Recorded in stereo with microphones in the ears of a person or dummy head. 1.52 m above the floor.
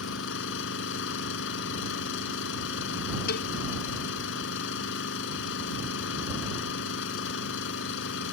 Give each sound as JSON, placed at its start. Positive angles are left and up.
{"t": 0.0, "sound": "an engine running", "side_deg": 75}
{"t": 3.3, "sound": "a cowbell", "side_deg": 60}